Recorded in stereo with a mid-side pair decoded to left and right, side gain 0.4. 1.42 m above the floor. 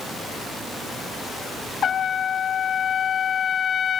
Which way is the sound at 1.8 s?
55° left.